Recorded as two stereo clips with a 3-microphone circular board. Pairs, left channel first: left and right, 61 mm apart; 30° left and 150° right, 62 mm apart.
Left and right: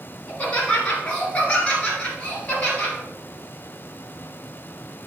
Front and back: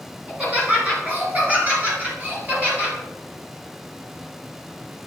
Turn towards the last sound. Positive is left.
turn(degrees=155)